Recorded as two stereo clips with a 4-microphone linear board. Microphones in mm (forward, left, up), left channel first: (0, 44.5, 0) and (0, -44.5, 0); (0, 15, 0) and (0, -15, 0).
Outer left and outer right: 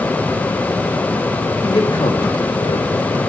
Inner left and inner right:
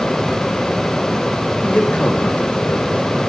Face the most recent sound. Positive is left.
turn(degrees=60)  # may be behind; listen again after turning